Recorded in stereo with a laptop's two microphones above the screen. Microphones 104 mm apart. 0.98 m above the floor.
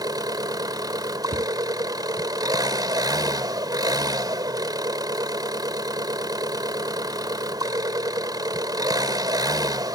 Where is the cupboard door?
65° right (ahead or behind).